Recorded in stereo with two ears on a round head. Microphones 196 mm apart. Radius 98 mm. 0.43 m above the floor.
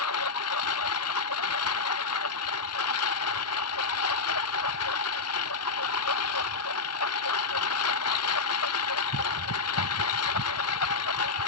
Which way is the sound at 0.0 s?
80° left.